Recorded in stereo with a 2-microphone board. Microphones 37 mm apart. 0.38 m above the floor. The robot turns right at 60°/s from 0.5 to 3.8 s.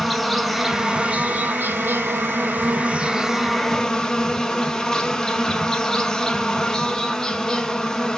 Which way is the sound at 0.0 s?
Straight behind.